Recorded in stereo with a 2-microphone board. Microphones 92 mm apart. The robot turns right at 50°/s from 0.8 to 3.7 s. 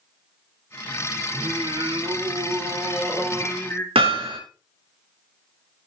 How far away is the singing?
About 2.5 m.